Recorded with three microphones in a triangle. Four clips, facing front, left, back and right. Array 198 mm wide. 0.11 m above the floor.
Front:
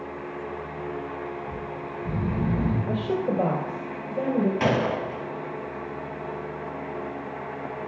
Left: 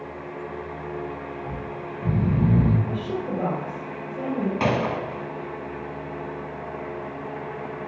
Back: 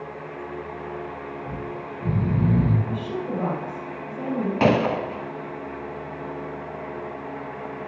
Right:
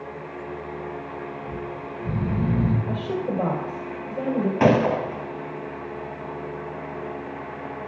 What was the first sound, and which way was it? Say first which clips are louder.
Snoring: even, back 1 dB; 130° left.